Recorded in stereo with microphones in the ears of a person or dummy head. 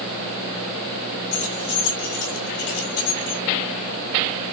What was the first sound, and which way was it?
Keys jangling, 65° left (ahead or behind).